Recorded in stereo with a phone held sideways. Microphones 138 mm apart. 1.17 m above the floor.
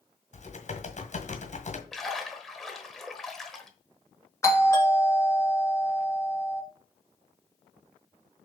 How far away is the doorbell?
About 2.0 m.